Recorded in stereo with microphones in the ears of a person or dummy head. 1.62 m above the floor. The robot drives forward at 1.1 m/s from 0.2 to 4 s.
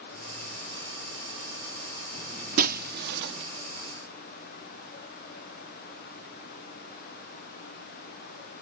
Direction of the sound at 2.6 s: 45° right (ahead or behind).